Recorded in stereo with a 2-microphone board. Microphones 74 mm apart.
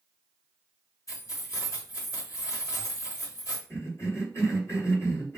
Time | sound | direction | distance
1.1 | keys jangling | 50° left (ahead or behind) | 1.2 m
3.7 | a cough | 40° left (ahead or behind) | 1.5 m